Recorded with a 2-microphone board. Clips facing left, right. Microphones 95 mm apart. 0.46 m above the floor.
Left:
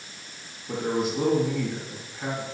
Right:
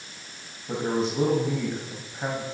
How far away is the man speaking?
About 3 m.